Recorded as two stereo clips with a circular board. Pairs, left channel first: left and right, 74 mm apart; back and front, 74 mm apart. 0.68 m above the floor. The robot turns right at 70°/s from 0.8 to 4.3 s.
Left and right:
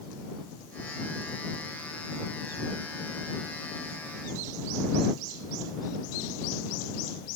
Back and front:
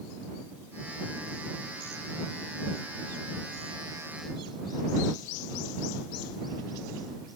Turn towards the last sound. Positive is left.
No sound to turn to.